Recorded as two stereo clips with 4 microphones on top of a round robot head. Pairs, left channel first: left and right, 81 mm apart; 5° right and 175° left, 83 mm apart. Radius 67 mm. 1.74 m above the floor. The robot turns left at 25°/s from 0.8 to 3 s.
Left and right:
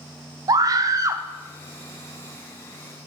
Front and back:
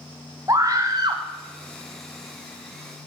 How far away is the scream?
About 0.6 m.